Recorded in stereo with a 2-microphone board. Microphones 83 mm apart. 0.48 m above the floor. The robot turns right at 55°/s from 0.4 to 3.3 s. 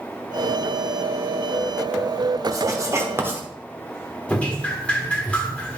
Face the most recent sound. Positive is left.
turn(degrees=15)  # may be behind; listen again after turning